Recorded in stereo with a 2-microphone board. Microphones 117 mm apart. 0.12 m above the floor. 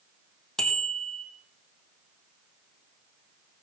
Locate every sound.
0.6 s a bicycle bell: 5° left (ahead or behind), 3.5 m